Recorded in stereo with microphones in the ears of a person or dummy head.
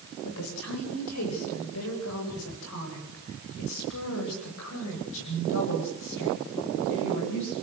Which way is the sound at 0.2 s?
85° left.